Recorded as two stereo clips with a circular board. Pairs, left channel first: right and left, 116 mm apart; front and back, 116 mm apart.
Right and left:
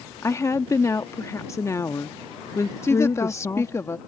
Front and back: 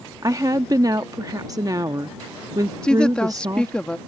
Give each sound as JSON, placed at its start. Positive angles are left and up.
{"t": 0.2, "sound": "a woman speaking", "azimuth_deg": -140}
{"t": 2.8, "sound": "a woman speaking", "azimuth_deg": -70}